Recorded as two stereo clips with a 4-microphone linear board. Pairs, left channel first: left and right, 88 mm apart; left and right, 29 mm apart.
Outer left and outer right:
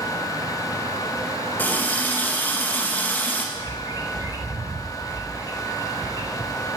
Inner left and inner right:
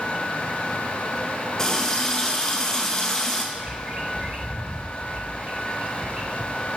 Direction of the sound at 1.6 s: 20° left (ahead or behind).